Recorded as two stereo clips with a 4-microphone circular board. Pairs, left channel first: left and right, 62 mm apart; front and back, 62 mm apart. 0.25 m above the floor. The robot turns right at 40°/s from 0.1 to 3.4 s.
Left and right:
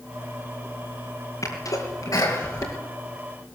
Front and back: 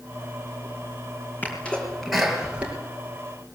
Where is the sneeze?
65° left, 5.5 m; by 2.8 s 120° left, 5.5 m.